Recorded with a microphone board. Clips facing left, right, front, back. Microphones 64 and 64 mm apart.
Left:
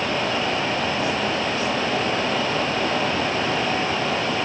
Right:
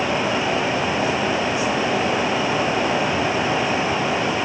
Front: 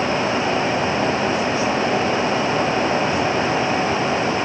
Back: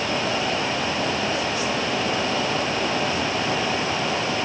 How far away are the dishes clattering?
I don't hear dishes clattering.